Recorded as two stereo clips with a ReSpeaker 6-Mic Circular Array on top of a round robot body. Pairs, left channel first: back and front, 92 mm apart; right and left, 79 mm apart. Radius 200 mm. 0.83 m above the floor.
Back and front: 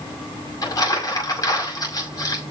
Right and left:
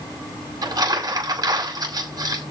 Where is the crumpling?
130° left, 6 m.